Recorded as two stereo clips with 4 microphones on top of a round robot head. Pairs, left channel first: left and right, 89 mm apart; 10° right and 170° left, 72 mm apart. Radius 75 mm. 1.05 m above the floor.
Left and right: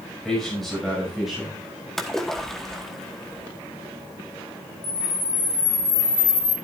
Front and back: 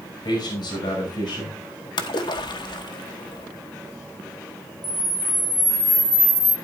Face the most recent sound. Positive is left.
turn(degrees=50)